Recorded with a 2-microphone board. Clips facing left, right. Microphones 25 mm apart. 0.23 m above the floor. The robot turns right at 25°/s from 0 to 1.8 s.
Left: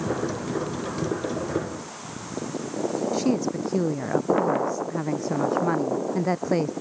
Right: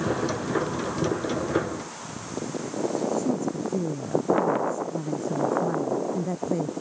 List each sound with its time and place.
3.1 s a woman speaking: 70° left (ahead or behind)